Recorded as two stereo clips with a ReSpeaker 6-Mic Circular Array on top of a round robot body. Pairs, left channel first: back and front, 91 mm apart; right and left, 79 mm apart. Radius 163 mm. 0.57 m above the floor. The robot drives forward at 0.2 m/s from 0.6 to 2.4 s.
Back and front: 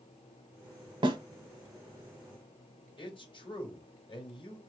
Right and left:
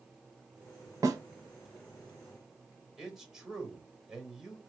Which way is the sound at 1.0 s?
35° left.